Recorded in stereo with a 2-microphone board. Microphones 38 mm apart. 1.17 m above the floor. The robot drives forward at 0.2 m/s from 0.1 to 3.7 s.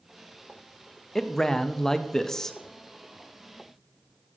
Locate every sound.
1.1 s a man speaking: 15° left (ahead or behind), 0.5 m